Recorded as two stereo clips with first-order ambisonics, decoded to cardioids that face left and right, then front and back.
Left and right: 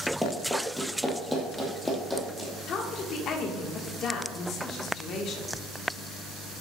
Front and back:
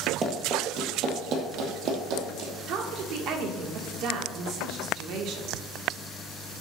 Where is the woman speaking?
140° left, 1.4 m.